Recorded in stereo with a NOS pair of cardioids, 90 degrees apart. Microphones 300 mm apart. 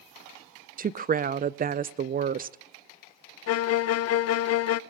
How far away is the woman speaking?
About 0.5 m.